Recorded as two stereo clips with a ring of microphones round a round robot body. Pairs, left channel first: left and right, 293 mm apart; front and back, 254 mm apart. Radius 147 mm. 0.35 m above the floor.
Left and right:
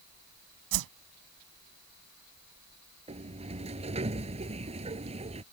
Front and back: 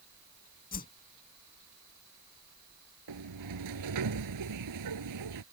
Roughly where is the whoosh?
Ahead right.